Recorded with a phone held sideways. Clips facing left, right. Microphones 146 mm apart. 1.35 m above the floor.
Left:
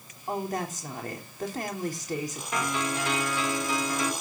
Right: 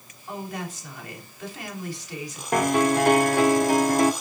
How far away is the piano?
About 0.8 m.